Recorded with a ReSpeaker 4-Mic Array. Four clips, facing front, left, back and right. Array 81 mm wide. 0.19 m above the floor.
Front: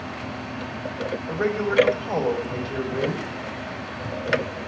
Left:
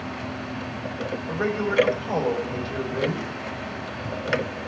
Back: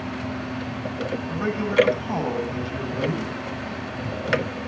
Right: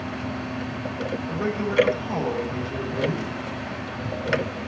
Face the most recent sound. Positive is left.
turn(degrees=30)